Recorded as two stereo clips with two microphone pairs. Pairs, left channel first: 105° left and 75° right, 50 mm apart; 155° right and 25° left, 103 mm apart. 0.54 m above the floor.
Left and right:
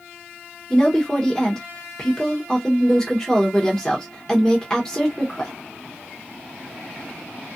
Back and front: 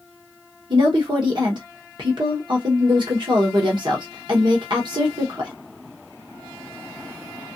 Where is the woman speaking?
35° left, 1.2 m.